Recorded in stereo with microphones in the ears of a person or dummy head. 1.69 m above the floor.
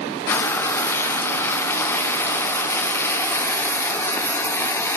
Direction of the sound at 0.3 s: 10° left (ahead or behind).